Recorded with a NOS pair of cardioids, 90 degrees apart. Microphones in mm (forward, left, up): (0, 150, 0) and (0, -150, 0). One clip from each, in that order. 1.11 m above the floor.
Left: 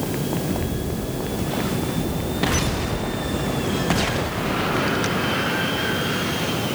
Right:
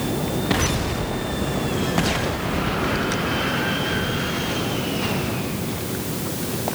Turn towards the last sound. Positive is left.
No sound to turn to.